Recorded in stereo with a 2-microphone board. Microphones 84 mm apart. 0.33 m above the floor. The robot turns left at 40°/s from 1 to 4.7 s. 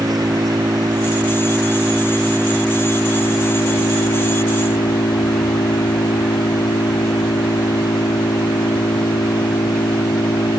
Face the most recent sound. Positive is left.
turn(degrees=85)